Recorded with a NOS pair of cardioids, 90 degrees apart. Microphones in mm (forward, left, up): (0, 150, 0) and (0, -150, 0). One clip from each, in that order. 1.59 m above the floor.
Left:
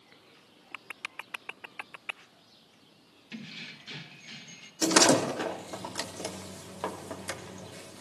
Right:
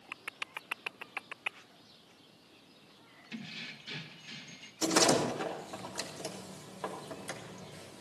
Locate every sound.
3.3 s keys jangling: 5° left, 1.5 m
4.8 s a door slam: 35° left, 3 m